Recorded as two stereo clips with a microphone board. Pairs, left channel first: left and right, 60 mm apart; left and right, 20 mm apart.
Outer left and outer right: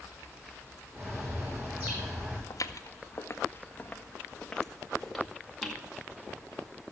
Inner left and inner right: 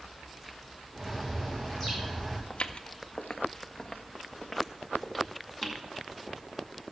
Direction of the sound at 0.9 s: 20° right (ahead or behind).